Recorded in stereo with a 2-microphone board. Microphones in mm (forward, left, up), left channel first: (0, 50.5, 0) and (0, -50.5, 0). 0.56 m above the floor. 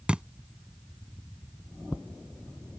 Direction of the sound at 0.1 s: 10° right (ahead or behind).